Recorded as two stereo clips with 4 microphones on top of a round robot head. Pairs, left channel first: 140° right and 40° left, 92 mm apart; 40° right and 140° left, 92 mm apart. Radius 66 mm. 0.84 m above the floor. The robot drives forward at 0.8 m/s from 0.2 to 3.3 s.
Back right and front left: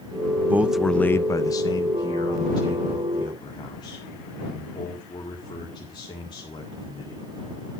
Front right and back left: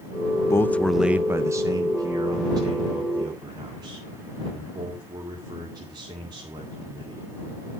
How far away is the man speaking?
About 0.6 m.